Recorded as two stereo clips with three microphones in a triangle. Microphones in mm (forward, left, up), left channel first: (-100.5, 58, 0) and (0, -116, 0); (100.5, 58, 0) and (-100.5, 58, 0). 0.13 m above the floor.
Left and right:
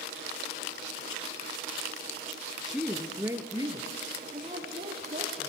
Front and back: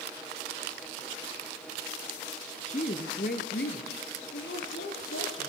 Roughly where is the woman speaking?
Ahead left.